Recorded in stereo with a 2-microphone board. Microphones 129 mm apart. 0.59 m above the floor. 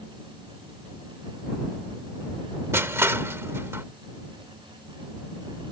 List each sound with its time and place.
2.7 s crushing: 20° right (ahead or behind)